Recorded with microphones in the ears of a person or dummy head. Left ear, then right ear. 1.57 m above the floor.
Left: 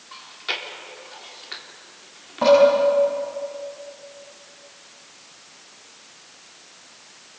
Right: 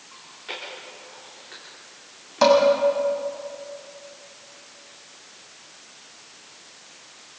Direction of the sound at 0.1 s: 45° left (ahead or behind).